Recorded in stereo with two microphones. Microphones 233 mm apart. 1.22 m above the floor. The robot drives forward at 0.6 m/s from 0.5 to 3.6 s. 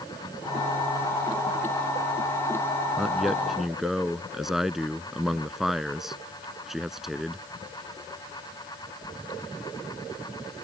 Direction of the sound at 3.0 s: Centre (ahead or behind).